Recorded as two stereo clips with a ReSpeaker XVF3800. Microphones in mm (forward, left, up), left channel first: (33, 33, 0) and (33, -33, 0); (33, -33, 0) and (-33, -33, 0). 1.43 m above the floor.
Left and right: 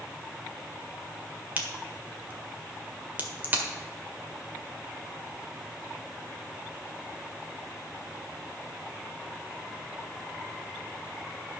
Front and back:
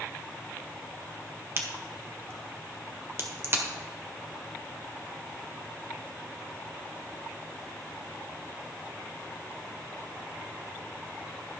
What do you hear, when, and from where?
1.6 s a crack: 145° right, 1.6 m